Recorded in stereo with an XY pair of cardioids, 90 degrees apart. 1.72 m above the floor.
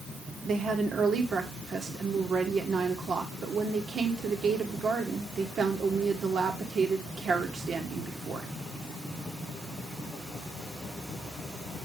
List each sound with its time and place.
0.5 s a woman speaking: 55° right, 2.5 m